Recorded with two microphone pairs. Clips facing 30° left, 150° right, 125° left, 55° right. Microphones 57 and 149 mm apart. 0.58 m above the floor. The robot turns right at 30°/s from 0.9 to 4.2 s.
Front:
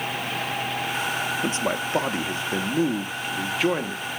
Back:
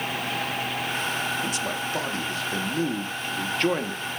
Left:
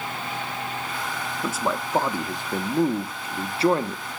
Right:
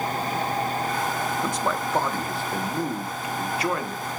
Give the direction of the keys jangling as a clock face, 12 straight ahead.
I don't hear keys jangling.